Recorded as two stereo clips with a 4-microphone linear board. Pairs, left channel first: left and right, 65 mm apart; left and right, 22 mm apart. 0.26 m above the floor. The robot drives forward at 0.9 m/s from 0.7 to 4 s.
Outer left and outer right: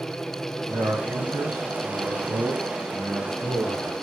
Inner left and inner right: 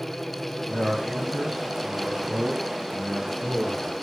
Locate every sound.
0.7 s a man speaking: 35° right (ahead or behind), 1.5 m; by 3.9 s 15° right (ahead or behind), 3.5 m